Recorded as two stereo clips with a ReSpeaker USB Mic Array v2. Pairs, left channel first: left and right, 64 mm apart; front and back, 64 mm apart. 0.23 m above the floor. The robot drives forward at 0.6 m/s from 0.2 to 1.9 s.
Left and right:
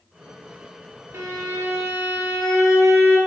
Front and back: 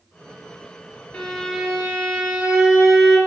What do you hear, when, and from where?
1.1 s a violin: 65° right, 0.7 m; by 3.2 s 120° right, 0.7 m